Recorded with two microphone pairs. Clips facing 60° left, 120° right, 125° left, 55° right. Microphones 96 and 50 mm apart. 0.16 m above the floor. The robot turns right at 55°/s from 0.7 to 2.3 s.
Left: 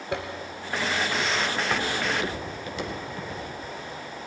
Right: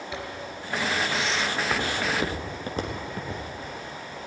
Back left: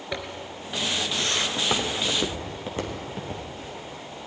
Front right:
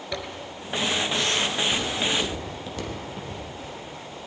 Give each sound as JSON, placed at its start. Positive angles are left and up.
{"t": 0.1, "sound": "a zipper", "azimuth_deg": 60, "distance_m": 1.5}
{"t": 1.6, "sound": "footsteps", "azimuth_deg": 140, "distance_m": 3.0}